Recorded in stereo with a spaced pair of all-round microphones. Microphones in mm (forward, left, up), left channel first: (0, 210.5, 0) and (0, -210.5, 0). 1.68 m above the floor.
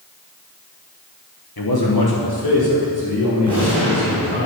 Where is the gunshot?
30° right (ahead or behind), 5 m.